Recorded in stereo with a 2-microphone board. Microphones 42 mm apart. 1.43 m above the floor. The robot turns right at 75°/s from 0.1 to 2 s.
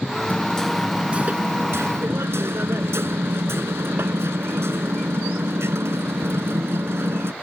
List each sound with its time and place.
0.3 s hammering: 145° left; by 7.3 s 90° right